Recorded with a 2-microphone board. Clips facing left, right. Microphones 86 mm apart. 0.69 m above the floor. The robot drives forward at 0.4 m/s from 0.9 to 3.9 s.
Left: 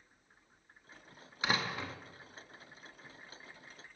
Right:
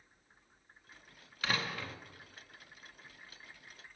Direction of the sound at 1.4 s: 20° left (ahead or behind).